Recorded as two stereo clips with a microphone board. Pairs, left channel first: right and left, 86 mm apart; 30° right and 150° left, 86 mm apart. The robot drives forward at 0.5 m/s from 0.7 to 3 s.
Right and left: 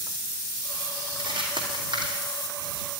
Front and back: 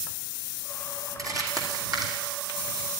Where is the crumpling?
105° left, 3 m; by 2.9 s 115° left, 3.5 m.